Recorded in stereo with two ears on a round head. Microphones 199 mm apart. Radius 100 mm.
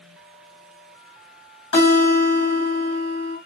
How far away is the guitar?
About 1.5 m.